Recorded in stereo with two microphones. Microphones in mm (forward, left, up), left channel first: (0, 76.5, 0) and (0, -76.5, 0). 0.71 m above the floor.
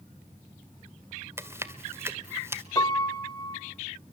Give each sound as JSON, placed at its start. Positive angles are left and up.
{"t": 1.4, "sound": "chewing", "side_deg": -15, "distance_m": 1.6}
{"t": 2.8, "sound": "a piano", "side_deg": 25, "distance_m": 2.0}